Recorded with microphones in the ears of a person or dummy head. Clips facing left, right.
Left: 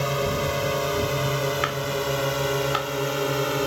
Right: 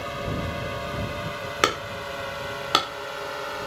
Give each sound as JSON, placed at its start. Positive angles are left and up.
{"t": 0.0, "sound": "a drone", "side_deg": 55}
{"t": 1.6, "sound": "hammering", "side_deg": -55}